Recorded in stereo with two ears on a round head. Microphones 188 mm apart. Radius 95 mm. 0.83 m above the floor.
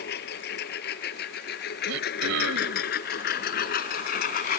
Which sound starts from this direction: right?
Throat clearing, at 1.9 s.